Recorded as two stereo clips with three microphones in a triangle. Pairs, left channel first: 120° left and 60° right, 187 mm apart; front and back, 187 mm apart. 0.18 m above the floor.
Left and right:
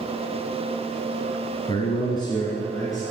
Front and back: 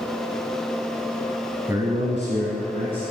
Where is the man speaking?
120° left, 1.0 m; by 3.0 s 170° right, 2 m.